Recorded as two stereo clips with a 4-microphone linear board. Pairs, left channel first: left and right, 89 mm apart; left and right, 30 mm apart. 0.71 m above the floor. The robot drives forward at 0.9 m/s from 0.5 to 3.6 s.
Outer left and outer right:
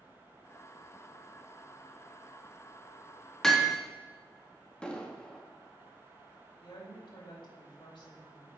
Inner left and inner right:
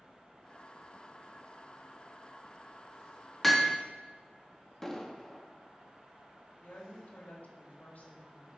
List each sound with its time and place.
3.4 s hammering: 5° left (ahead or behind), 0.9 m
4.8 s an explosion: 10° left (ahead or behind), 0.8 m
6.6 s a woman speaking: 65° left (ahead or behind), 2.5 m